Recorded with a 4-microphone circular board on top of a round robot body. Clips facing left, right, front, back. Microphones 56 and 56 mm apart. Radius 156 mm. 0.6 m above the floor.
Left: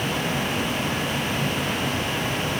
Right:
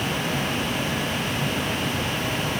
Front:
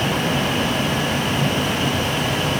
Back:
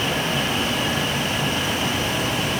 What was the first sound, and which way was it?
Only background noise.